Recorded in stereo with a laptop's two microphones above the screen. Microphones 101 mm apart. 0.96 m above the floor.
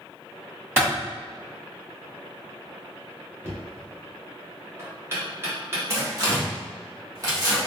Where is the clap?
25° right (ahead or behind), 1.7 m.